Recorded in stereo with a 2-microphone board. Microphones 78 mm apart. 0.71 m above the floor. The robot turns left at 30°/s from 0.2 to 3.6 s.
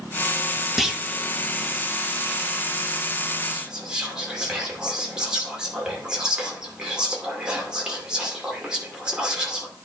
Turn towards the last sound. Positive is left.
turn(degrees=-10)  # may be behind; listen again after turning